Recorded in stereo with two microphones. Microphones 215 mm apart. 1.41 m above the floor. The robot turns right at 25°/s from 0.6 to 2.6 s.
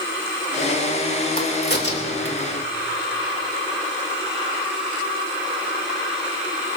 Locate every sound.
1.4 s a crack: 40° left (ahead or behind), 2.5 m; by 2.5 s 65° left (ahead or behind), 2.5 m